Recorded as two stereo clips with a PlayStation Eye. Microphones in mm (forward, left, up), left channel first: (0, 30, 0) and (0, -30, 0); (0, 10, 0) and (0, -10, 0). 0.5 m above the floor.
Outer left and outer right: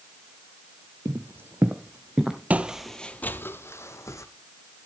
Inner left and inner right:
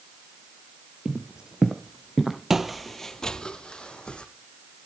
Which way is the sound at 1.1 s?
55° right (ahead or behind).